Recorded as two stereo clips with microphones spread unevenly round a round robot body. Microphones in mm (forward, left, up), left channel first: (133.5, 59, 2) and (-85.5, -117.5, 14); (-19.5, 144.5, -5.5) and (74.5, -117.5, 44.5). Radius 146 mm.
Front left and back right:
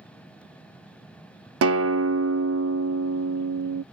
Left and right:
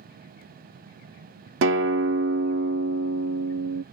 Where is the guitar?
110° right.